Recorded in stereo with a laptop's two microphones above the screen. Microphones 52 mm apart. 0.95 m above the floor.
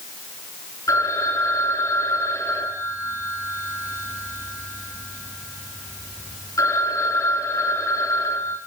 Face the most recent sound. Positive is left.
turn(degrees=90)